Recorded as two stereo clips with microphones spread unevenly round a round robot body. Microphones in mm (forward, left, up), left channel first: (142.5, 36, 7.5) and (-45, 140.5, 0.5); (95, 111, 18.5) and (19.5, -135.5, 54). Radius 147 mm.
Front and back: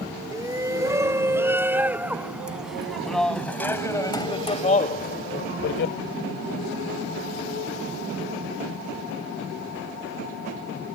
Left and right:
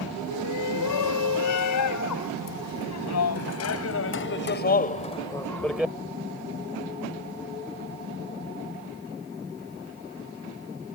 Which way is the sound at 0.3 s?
75° left.